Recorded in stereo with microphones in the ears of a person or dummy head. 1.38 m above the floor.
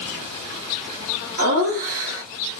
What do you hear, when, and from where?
1.4 s laughter: 55° right (ahead or behind), 1.2 m